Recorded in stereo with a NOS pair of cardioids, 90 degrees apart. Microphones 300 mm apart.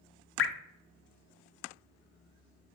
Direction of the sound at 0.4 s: 45° left.